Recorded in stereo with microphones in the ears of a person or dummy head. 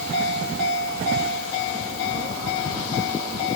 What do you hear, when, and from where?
Only background noise.